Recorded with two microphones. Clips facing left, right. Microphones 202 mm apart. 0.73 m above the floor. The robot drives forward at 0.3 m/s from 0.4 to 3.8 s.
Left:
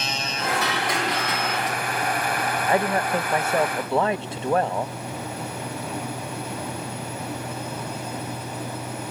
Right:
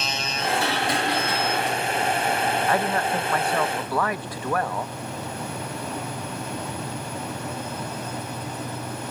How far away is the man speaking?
About 0.6 m.